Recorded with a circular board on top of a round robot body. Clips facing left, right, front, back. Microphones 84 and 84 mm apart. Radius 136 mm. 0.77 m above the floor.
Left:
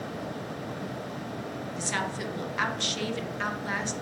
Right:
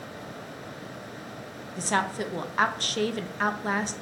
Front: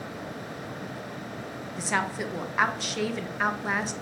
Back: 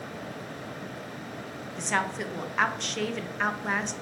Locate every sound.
1.8 s a woman speaking: 85° right, 0.7 m